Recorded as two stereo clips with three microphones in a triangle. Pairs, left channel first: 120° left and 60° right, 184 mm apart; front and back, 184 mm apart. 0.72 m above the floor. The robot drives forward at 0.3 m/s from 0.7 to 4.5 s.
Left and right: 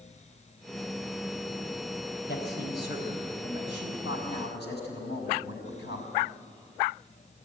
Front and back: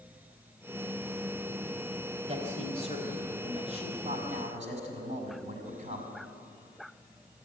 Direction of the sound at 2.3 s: 130° left.